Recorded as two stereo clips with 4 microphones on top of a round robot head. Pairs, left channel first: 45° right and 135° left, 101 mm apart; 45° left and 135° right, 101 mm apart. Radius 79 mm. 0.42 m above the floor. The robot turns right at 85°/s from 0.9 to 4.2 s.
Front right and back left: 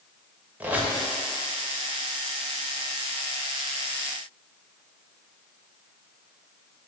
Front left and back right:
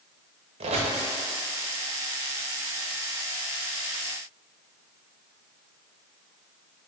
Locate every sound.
0.6 s a squeak: 150° right, 0.6 m; by 1.0 s 140° right, 0.6 m